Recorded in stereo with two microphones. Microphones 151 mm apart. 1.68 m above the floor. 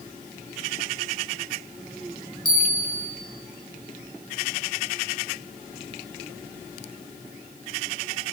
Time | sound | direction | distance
2.5 | a bell | 80° left | 2 m